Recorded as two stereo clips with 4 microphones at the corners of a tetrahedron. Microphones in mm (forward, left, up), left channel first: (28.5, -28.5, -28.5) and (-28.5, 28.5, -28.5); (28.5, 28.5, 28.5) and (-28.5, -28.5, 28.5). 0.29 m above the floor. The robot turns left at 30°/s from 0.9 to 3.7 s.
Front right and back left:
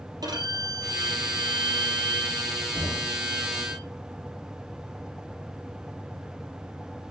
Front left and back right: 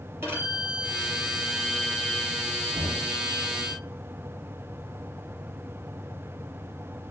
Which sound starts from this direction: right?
Knocking, at 2.8 s.